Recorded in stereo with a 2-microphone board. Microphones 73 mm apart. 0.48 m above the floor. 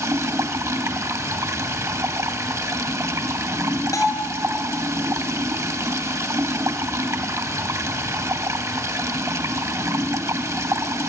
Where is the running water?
45° right (ahead or behind), 1.3 m.